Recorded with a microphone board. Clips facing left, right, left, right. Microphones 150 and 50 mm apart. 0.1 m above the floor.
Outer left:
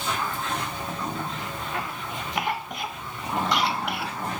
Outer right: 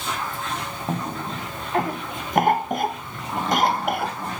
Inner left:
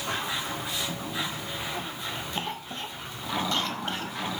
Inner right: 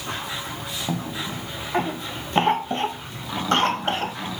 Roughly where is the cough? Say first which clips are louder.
Outer right 3 dB, inner right 4 dB; right.